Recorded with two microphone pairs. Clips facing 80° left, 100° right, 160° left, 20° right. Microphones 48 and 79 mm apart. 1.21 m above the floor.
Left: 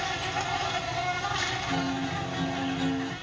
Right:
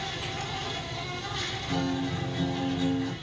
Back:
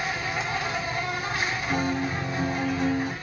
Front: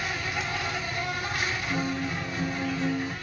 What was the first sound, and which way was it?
An insect, 95° left.